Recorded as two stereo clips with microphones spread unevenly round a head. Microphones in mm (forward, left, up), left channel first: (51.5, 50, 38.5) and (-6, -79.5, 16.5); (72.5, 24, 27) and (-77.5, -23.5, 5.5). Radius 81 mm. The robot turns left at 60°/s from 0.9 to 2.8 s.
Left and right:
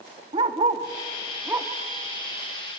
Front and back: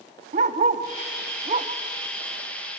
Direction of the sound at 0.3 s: 160° right.